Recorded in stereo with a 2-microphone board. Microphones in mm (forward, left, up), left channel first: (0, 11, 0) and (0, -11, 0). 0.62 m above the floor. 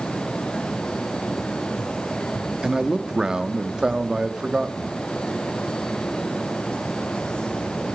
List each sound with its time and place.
2.6 s a man speaking: 40° right (ahead or behind), 0.8 m